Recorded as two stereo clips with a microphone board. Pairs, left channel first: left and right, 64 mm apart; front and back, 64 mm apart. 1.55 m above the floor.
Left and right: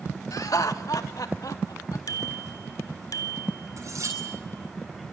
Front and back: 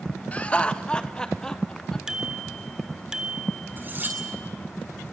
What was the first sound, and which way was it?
Laughter, 65° left.